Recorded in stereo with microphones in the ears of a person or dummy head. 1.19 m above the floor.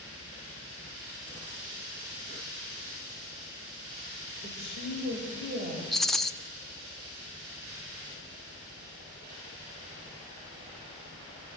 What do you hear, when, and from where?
4.4 s a woman speaking: 50° right (ahead or behind), 5 m
5.9 s a rattle: centre (ahead or behind), 0.6 m